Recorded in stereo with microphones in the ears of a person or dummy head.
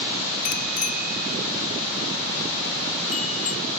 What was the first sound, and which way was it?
A bicycle bell, 45° left (ahead or behind).